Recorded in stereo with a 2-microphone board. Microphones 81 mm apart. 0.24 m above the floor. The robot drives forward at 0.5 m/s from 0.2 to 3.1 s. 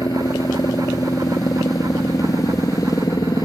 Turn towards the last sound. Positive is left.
turn(degrees=50)  # may be behind; listen again after turning